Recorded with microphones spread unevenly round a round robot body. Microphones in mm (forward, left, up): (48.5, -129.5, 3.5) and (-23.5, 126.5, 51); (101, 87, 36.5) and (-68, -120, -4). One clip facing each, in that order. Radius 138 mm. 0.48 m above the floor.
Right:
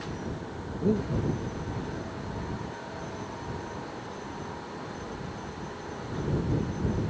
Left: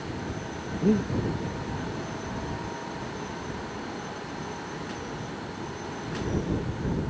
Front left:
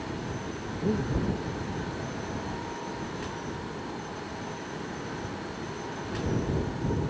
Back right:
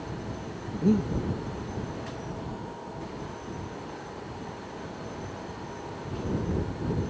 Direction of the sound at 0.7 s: 175° left.